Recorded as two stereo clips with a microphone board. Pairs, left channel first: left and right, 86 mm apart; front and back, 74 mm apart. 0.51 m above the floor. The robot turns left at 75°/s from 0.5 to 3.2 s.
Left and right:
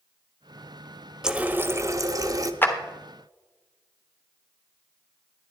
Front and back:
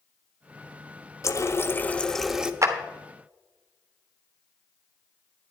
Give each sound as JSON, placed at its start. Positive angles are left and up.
{"t": 1.2, "sound": "a running tap", "azimuth_deg": -10, "distance_m": 0.7}
{"t": 2.6, "sound": "a clap", "azimuth_deg": 150, "distance_m": 1.2}